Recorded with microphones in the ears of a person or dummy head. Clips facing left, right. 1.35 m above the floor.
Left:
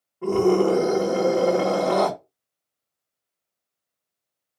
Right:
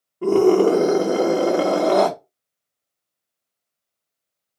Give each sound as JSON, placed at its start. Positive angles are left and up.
{"t": 0.2, "sound": "a scream", "side_deg": -50, "distance_m": 1.6}